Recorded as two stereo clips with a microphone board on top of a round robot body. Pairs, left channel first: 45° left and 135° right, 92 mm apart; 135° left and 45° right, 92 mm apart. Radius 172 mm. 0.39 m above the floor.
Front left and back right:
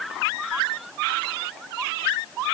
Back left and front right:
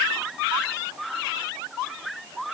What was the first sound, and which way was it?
Only background noise.